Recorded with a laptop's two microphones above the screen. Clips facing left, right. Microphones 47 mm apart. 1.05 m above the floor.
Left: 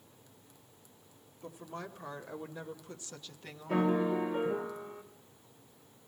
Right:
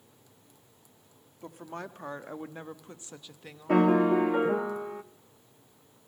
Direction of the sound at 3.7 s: 80° right.